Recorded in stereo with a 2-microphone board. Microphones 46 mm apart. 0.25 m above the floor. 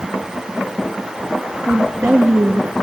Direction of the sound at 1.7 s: 65° right (ahead or behind).